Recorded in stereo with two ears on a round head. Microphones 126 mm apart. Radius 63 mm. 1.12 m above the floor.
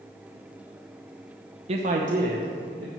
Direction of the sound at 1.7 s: 40° right (ahead or behind).